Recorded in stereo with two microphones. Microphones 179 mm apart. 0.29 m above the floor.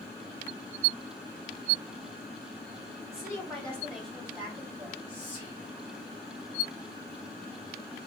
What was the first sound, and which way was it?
A woman speaking, 15° left (ahead or behind).